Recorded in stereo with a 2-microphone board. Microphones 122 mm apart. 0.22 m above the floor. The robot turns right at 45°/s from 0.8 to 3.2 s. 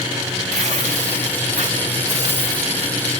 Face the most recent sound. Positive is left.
turn(degrees=5)